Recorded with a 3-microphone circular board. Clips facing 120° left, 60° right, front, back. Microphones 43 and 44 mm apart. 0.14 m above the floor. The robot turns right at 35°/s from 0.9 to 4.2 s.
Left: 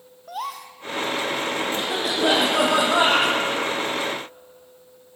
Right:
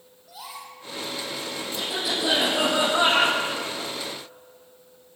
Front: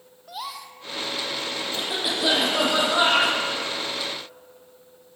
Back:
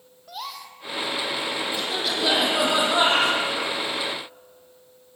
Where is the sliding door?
I don't hear a sliding door.